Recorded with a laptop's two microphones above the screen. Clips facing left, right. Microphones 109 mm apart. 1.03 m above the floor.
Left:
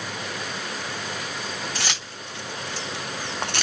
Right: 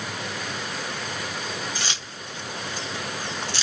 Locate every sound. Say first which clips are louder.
1.8 s keys jangling: left 1 dB; 75° left (ahead or behind), 1.7 m; by 3.6 s 55° left (ahead or behind), 0.6 m